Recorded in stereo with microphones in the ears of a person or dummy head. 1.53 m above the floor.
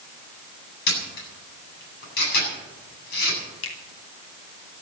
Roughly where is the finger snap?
Left.